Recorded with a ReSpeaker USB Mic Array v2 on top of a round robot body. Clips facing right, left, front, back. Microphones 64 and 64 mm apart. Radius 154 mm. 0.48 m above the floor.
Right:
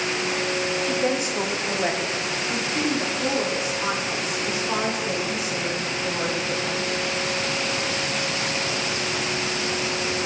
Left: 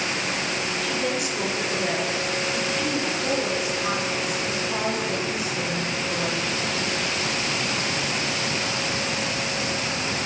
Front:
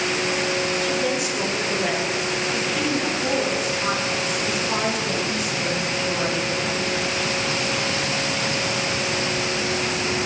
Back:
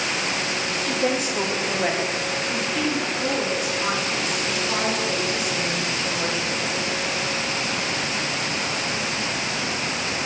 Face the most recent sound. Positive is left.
turn(degrees=-80)